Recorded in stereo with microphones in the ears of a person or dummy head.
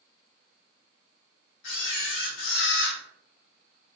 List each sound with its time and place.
1.6 s a camera shutter: 70° left (ahead or behind), 1.4 m